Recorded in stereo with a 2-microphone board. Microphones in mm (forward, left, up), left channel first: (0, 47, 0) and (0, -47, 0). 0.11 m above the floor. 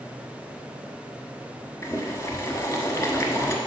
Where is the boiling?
30° left (ahead or behind), 0.8 m.